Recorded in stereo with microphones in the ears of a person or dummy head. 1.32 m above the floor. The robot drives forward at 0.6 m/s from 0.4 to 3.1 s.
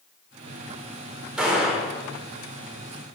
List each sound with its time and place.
1.4 s a gunshot: 5° right (ahead or behind), 3.5 m